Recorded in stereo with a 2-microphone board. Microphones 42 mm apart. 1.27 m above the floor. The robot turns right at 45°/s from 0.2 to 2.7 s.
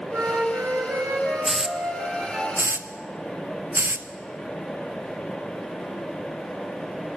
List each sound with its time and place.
0.1 s a flute: 120° right, 4 m; by 2.4 s 20° right, 4 m
1.4 s a hiss: 10° right (ahead or behind), 0.6 m; by 4.1 s 60° right (ahead or behind), 0.6 m